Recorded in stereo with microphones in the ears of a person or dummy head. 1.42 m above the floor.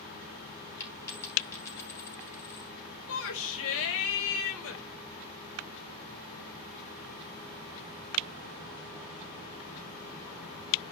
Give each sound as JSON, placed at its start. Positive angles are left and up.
{"t": 0.8, "sound": "a dropped coin", "side_deg": 20, "distance_m": 3.5}
{"t": 3.1, "sound": "a shout", "side_deg": 75, "distance_m": 2.5}